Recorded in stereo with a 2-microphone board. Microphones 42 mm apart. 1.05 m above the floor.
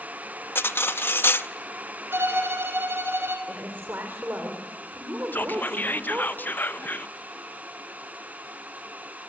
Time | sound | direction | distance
0.6 | cutlery clinking | 70° left (ahead or behind) | 0.7 m
2.1 | a violin | 85° right | 3.5 m
3.5 | a woman speaking | 55° right (ahead or behind) | 3.5 m
5.3 | whispering | 50° left (ahead or behind) | 0.6 m